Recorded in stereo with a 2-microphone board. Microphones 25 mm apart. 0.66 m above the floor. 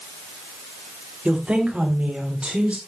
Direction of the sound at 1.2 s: 30° right (ahead or behind).